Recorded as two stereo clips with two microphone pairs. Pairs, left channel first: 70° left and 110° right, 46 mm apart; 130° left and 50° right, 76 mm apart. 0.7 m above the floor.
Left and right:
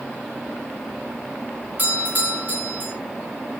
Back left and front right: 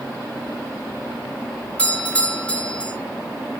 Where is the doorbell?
155° right, 3.5 m.